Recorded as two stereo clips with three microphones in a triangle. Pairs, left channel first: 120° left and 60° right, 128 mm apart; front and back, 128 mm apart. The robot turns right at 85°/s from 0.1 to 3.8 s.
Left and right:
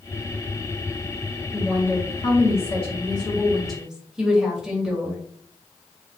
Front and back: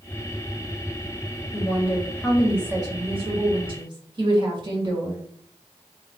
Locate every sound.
1.5 s a woman speaking: 25° left, 1.6 m; by 5.2 s 145° right, 1.6 m